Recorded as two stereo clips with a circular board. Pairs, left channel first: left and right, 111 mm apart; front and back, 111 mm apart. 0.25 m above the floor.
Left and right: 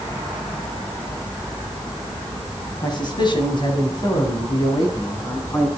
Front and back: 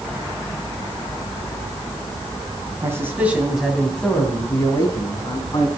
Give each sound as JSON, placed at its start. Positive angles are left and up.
{"t": 2.8, "sound": "a man speaking", "azimuth_deg": 120, "distance_m": 2.5}